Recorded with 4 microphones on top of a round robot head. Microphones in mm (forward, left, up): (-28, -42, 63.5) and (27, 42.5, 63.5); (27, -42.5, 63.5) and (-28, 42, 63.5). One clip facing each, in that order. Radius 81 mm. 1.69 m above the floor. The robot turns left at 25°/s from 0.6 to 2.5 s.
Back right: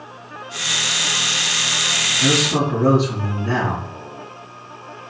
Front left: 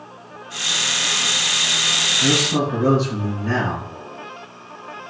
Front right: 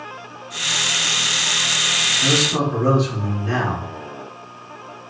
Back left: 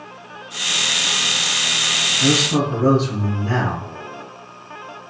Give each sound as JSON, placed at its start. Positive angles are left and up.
{"t": 2.2, "sound": "a man speaking", "azimuth_deg": 170, "distance_m": 1.5}